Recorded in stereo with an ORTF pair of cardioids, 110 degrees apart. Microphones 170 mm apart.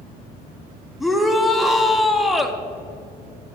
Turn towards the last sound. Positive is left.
turn(degrees=0)